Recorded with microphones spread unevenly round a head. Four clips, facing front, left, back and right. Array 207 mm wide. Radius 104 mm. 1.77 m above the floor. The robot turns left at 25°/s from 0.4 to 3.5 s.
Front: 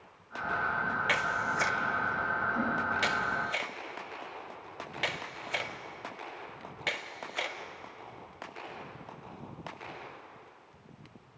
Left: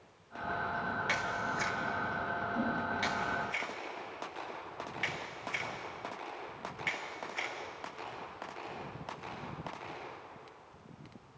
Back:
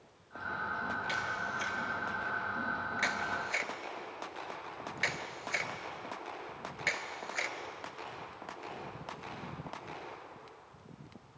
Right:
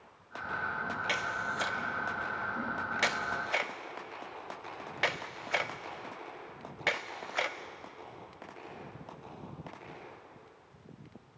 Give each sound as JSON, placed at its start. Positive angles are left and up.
{"t": 1.1, "sound": "a camera shutter", "azimuth_deg": -20, "distance_m": 0.8}